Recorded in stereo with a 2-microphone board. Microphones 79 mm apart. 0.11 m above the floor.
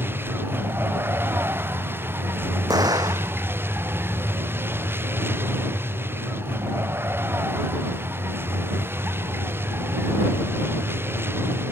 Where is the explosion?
55° right (ahead or behind).